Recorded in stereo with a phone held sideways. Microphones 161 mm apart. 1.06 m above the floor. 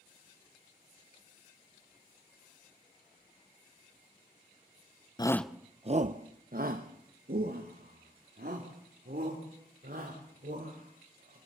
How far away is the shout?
About 0.5 m.